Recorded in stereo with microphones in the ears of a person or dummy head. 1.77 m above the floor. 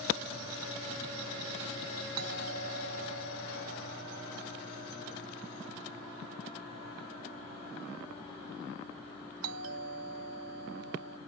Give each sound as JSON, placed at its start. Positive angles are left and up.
{"t": 2.2, "sound": "a doorbell", "side_deg": -85}